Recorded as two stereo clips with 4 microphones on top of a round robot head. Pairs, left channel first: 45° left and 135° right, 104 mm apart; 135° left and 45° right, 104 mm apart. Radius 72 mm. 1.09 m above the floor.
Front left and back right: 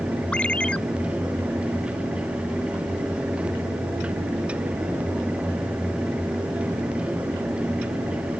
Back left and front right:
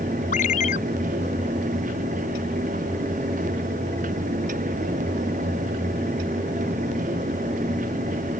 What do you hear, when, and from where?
0.3 s a ringtone: 125° left